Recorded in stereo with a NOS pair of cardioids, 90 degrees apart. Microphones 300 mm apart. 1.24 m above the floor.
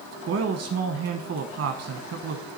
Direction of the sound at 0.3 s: 55° right.